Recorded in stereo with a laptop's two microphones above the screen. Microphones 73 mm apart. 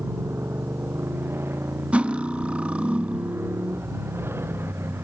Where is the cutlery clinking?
15° right (ahead or behind).